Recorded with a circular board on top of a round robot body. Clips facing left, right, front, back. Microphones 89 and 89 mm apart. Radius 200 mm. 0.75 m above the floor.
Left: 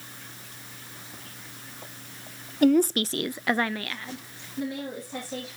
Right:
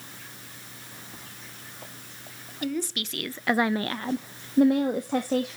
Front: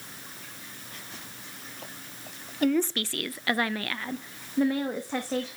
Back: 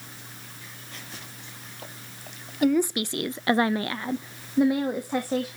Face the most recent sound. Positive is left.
turn(degrees=-105)